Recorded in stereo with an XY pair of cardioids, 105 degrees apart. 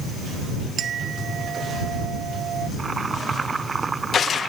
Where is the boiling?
30° right.